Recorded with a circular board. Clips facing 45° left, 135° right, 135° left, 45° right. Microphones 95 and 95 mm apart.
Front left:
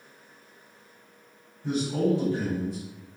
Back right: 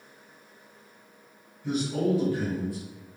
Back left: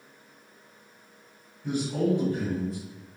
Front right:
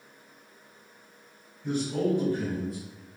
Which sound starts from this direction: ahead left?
A man speaking, at 1.6 s.